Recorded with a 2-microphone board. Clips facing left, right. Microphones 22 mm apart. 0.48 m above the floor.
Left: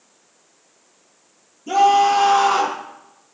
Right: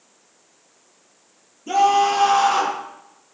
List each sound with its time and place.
1.7 s a scream: 10° right (ahead or behind), 10 m